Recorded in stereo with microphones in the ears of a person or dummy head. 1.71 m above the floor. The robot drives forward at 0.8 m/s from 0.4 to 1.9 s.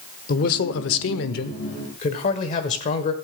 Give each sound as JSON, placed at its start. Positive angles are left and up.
{"t": 0.3, "sound": "a man speaking", "side_deg": 50, "distance_m": 0.9}